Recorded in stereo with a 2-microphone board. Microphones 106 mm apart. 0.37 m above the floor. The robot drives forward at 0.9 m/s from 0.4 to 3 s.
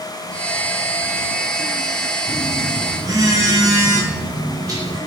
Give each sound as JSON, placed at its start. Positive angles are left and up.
{"t": 2.3, "sound": "a phone buzzing", "side_deg": -45, "distance_m": 1.6}